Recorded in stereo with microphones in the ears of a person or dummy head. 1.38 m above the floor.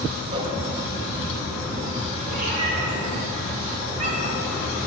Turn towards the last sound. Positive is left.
turn(degrees=-40)  # may be behind; listen again after turning